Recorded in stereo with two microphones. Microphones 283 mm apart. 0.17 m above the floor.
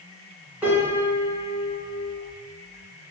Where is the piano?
5° right (ahead or behind), 1.6 m.